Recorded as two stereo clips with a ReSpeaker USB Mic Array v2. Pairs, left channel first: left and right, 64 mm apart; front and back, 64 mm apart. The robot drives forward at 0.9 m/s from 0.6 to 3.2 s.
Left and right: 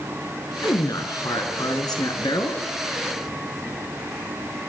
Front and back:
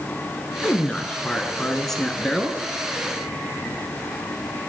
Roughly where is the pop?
No pop in this recording.